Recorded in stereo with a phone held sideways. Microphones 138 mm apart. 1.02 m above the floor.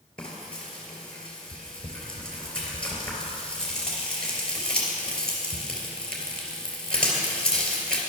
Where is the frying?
5° left (ahead or behind), 3 m.